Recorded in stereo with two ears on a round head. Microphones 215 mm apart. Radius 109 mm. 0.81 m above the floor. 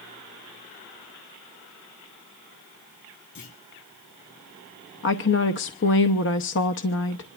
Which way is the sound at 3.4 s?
55° left (ahead or behind).